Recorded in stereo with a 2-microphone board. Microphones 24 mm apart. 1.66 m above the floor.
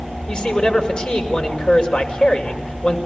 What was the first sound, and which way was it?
A man speaking, 35° left (ahead or behind).